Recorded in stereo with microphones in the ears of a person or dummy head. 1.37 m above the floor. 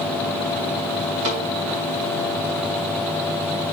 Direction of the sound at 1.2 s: 60° right (ahead or behind).